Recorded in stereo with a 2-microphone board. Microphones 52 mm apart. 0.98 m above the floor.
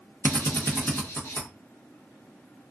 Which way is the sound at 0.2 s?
55° left (ahead or behind).